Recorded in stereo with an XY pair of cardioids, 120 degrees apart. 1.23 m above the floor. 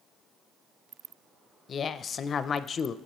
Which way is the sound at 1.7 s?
40° left.